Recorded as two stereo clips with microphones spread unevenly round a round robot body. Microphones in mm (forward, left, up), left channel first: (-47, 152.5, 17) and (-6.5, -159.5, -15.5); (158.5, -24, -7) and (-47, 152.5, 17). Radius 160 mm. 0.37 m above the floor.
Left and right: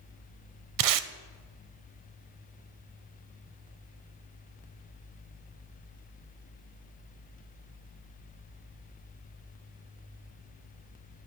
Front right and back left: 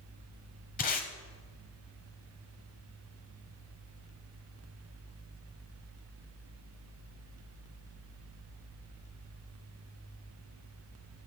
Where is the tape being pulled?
105° right, 0.6 m.